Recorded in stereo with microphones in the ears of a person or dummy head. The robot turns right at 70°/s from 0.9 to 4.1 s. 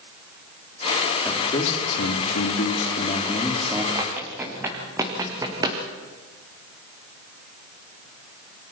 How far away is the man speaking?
About 3 m.